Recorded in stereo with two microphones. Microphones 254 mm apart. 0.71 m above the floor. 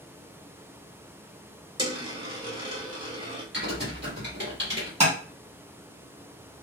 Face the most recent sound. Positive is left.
turn(degrees=-25)  # may be behind; listen again after turning